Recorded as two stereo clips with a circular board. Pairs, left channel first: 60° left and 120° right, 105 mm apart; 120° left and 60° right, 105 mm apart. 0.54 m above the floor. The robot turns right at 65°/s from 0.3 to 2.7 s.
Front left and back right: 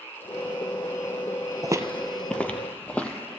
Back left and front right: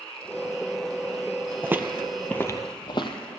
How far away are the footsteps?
About 0.6 m.